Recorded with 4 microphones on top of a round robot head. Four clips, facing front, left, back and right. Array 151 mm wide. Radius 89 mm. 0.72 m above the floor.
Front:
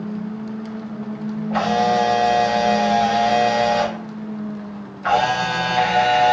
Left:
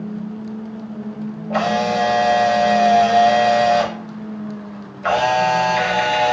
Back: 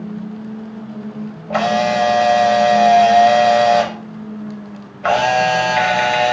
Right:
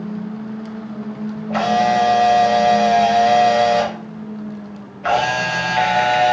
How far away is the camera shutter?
About 0.7 m.